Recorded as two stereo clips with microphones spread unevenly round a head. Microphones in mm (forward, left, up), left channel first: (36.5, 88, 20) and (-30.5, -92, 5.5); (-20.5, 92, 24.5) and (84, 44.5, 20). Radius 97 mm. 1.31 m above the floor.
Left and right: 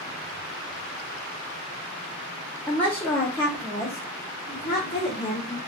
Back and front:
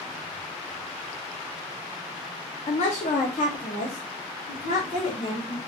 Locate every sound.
2.7 s a woman speaking: 155° left, 0.6 m; by 5.6 s 145° left, 2 m